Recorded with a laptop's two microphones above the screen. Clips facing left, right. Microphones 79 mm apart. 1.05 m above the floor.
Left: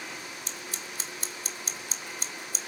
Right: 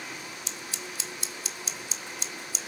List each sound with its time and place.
0.5 s scissors: 45° left (ahead or behind), 1.4 m